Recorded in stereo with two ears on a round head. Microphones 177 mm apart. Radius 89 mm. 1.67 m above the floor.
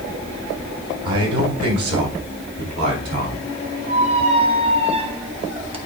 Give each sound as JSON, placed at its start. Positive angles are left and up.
{"t": 1.1, "sound": "a man speaking", "side_deg": -85, "distance_m": 2.0}
{"t": 3.9, "sound": "a squeak", "side_deg": -30, "distance_m": 0.9}